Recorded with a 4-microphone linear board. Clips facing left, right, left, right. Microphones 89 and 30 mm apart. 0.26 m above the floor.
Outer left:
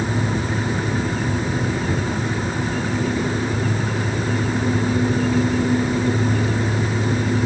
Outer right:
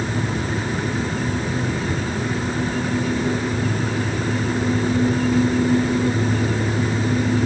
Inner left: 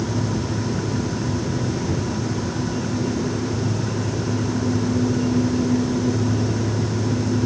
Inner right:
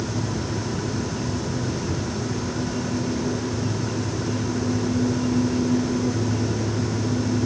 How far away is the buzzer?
No buzzer in this recording.